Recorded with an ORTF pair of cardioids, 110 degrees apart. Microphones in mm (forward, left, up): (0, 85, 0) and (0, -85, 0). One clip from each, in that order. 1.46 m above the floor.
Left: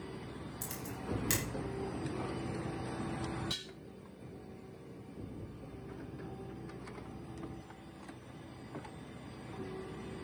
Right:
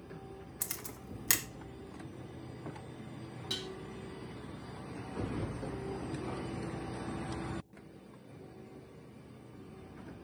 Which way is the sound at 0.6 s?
40° right.